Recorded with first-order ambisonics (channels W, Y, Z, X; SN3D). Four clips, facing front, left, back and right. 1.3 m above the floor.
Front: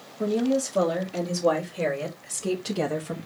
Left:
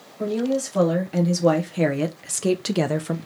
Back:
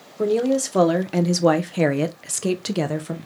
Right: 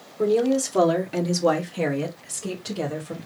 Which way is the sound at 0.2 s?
160° right.